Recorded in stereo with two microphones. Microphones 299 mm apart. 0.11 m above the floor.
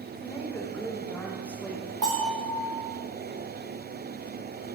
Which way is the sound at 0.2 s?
10° left (ahead or behind).